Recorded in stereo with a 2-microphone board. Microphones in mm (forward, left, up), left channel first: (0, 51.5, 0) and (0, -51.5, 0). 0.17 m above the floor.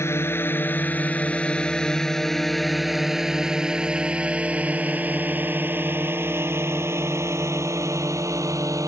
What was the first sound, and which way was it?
A drone, 25° left (ahead or behind).